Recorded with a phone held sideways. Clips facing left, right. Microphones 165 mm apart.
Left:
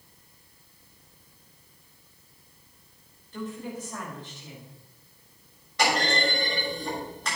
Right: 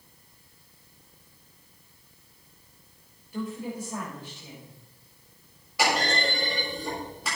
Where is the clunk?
10° right (ahead or behind), 6.5 m.